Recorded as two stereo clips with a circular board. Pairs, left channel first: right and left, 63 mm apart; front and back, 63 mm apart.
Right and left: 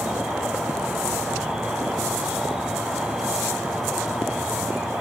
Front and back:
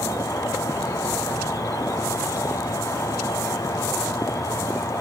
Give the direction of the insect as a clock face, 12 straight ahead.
12 o'clock.